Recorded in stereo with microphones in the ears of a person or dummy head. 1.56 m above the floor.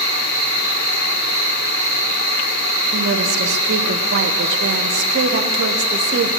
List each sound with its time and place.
0.0 s an insect: 35° right (ahead or behind), 2.5 m
2.9 s a woman speaking: 60° right (ahead or behind), 0.6 m